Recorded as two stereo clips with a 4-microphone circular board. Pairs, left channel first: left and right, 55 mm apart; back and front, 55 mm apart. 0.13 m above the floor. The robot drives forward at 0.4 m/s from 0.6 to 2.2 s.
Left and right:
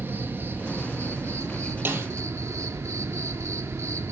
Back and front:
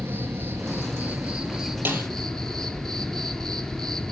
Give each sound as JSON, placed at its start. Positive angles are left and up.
{"t": 0.0, "sound": "an insect", "azimuth_deg": -45, "distance_m": 0.8}
{"t": 1.9, "sound": "a snare drum", "azimuth_deg": -50, "distance_m": 3.0}